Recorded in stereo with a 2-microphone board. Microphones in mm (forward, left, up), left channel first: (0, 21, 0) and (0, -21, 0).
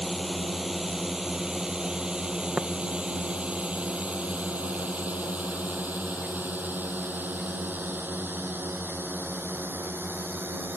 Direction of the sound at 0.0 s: Centre (ahead or behind).